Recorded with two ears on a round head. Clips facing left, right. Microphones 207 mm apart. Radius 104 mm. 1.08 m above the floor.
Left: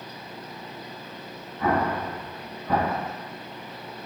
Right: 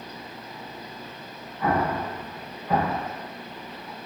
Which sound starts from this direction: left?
An explosion, at 1.6 s.